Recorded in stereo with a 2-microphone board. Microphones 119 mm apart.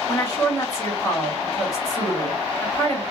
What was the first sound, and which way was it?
A woman speaking, 30° left (ahead or behind).